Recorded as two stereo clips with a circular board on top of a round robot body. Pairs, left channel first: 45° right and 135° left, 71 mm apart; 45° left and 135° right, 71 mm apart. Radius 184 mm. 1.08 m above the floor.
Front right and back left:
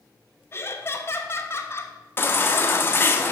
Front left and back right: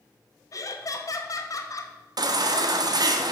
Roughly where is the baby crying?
Right.